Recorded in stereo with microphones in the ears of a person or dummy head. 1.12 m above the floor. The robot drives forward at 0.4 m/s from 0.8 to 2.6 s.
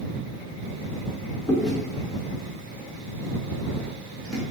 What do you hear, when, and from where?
1.5 s chewing: centre (ahead or behind), 0.5 m